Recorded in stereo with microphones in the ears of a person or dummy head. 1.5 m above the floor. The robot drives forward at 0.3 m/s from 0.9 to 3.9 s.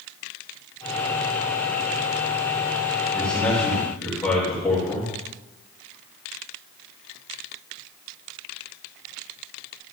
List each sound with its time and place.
3.1 s a man speaking: 5° left (ahead or behind), 4 m